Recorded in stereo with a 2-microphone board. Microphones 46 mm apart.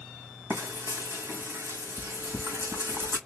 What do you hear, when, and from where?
0.5 s frying: 65° right (ahead or behind), 2.0 m